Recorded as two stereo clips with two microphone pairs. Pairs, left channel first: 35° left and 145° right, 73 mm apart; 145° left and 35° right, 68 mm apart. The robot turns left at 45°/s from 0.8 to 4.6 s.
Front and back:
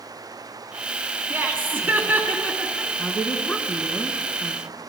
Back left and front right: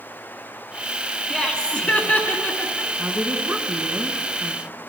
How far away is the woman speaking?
About 1.3 m.